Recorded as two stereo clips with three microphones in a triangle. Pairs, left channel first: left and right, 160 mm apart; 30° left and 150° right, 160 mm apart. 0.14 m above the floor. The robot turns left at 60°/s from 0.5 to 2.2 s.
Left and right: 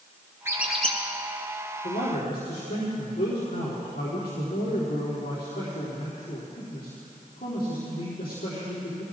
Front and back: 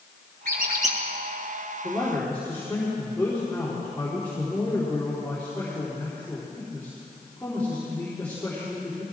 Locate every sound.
0.5 s a squeak: 165° right, 2 m; by 1.0 s 165° left, 2 m
1.8 s a man speaking: 130° left, 4 m; by 9.0 s 110° left, 4 m